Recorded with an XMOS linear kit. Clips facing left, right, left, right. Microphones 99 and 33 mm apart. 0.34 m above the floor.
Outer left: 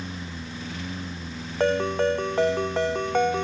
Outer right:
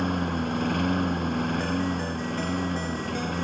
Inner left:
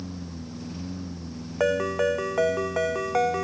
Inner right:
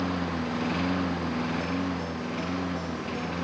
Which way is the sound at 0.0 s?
55° right (ahead or behind).